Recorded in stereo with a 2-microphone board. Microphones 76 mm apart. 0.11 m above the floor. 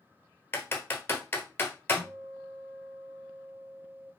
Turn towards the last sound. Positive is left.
turn(degrees=-25)  # may be behind; listen again after turning